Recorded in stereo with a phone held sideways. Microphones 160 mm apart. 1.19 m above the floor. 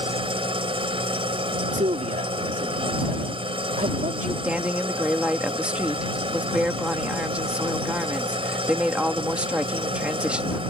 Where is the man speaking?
55° right (ahead or behind).